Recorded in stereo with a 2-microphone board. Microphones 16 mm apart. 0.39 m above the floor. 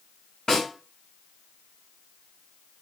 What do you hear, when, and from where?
0.5 s a snare drum: 55° left (ahead or behind), 4 m